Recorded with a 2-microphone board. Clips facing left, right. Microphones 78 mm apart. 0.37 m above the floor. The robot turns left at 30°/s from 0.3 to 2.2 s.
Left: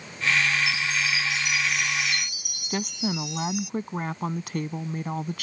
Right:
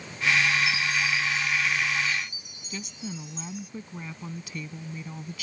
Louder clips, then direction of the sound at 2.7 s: Left 9 dB; 55° left (ahead or behind).